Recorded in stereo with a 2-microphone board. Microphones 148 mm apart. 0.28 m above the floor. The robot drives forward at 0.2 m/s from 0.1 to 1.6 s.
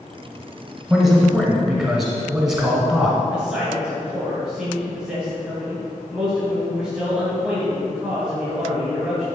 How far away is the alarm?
I don't hear an alarm.